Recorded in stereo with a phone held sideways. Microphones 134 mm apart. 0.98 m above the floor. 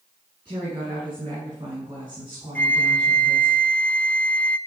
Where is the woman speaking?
35° right (ahead or behind), 9 m.